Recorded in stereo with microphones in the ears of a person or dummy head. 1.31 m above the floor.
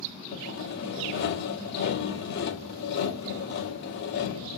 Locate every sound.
0.3 s sawing: 60° left (ahead or behind), 2 m